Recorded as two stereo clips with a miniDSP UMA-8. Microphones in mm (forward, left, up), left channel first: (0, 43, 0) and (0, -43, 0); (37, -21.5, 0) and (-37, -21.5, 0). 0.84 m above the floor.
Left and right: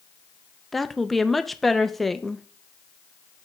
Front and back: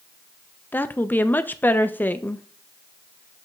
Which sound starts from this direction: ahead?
A woman speaking, at 0.7 s.